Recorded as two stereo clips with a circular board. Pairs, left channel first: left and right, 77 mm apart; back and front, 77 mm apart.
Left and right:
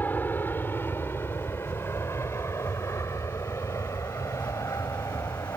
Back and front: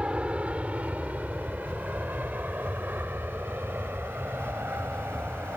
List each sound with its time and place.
0.0 s an aircraft: 60° left; by 5.6 s 55° left